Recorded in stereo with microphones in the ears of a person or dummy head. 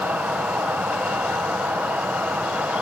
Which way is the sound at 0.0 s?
5° right (ahead or behind).